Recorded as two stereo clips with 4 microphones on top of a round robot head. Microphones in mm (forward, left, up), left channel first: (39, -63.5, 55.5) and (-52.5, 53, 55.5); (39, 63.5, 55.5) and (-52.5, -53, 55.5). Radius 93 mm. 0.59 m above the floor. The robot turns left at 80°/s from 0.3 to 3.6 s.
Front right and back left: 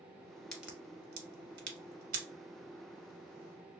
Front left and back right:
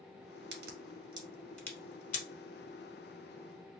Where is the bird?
I don't hear a bird.